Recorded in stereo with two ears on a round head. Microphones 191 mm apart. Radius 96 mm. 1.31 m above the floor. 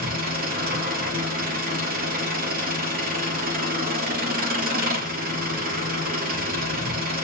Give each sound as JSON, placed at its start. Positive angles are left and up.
{"t": 0.0, "sound": "an engine running", "side_deg": -45, "distance_m": 3.0}